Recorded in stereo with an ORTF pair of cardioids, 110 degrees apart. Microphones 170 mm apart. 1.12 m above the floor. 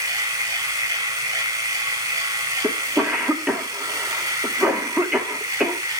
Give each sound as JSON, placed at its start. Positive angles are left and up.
{"t": 0.0, "sound": "a machine running", "azimuth_deg": -20, "distance_m": 3.0}
{"t": 2.6, "sound": "a cough", "azimuth_deg": -5, "distance_m": 2.0}